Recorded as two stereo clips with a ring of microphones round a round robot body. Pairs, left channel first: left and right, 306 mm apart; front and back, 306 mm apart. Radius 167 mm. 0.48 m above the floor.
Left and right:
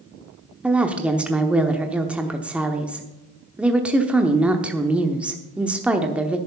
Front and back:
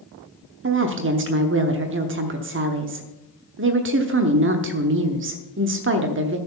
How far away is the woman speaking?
About 0.9 m.